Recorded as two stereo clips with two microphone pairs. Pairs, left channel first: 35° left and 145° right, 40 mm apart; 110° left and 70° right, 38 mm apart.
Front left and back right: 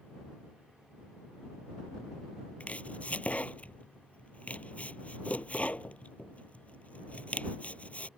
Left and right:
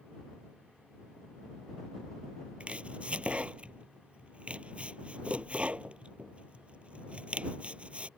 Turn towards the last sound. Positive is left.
turn(degrees=-15)